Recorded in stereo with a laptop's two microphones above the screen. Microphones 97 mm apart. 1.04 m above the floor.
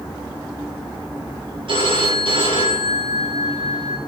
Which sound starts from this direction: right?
A phone ringing, at 1.7 s.